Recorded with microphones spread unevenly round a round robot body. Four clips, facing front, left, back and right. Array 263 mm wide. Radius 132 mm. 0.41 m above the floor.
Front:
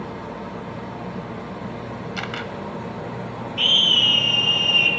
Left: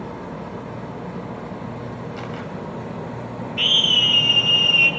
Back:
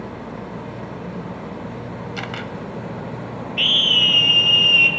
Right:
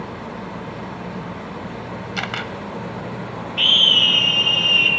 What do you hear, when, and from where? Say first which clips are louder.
2.2 s a camera shutter: right 3 dB, even; 90° right, 1.2 m
3.6 s a scream: right 2 dB, back 1 dB; 160° right, 2.5 m